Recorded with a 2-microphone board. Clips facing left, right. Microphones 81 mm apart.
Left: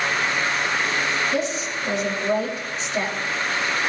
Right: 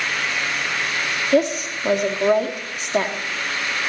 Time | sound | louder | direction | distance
1.3 | a woman speaking | right 6 dB | 55° right (ahead or behind) | 2.5 m